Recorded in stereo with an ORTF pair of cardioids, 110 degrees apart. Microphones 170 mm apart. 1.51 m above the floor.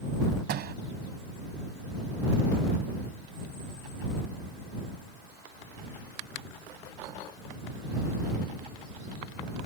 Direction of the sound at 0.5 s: 65° right.